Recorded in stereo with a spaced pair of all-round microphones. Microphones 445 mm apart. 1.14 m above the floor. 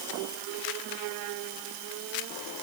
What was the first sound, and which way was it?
Only background noise.